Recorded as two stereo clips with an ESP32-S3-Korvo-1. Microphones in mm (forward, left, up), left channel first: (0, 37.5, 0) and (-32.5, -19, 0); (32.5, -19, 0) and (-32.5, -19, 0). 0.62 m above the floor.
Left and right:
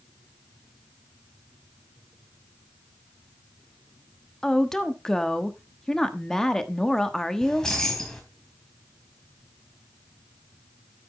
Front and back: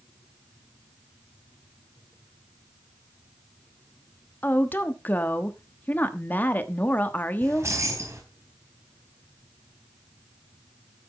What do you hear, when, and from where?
4.4 s a woman speaking: 15° right, 1.2 m
7.4 s keys jangling: 140° left, 3.5 m